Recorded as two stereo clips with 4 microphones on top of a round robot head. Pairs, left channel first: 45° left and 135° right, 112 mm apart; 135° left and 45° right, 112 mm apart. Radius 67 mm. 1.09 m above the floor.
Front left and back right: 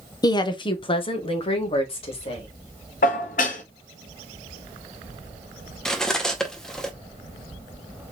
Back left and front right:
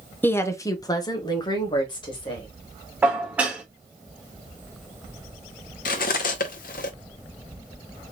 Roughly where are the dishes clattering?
Ahead left.